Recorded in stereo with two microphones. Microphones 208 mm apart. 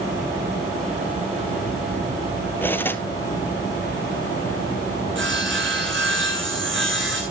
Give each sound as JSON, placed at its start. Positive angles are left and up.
{"t": 2.6, "sound": "cutlery clinking", "side_deg": 10, "distance_m": 1.3}
{"t": 5.2, "sound": "sawing", "side_deg": -60, "distance_m": 4.0}